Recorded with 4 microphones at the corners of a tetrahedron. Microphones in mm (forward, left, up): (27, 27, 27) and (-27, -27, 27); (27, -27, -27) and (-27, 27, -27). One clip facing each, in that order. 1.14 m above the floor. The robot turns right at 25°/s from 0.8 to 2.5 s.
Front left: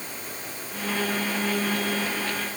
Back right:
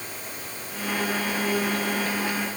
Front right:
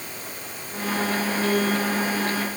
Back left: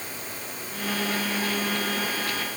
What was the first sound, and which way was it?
Only background noise.